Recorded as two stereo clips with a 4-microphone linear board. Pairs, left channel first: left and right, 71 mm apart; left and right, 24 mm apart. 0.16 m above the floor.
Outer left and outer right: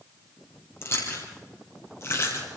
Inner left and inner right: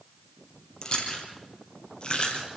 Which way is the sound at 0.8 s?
40° left (ahead or behind).